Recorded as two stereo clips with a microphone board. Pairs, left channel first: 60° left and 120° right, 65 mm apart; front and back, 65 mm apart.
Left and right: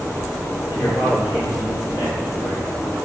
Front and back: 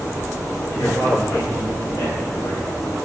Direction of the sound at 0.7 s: 30° left.